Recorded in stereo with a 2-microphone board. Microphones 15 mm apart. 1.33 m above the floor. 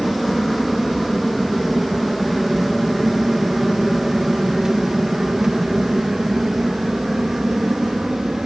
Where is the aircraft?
10° left (ahead or behind); by 8.5 s 65° right (ahead or behind).